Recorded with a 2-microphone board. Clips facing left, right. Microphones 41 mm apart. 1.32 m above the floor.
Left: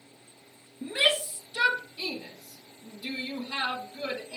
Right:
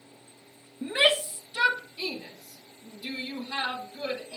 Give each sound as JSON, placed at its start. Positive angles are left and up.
{"t": 0.8, "sound": "a shout", "side_deg": -35, "distance_m": 1.6}